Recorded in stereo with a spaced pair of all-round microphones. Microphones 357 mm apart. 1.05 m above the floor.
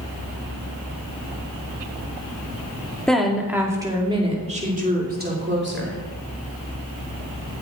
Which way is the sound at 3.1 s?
Centre (ahead or behind).